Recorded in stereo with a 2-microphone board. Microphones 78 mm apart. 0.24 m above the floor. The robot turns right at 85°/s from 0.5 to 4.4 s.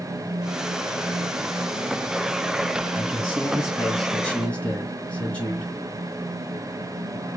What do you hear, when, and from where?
3.0 s a man speaking: 20° right (ahead or behind), 1.4 m; by 5.7 s 15° left (ahead or behind), 1.4 m